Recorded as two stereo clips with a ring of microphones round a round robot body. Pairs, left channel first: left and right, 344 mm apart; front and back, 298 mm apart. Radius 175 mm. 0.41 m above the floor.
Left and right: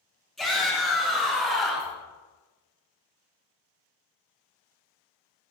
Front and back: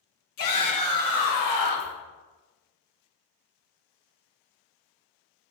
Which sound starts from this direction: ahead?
A shout, at 0.4 s.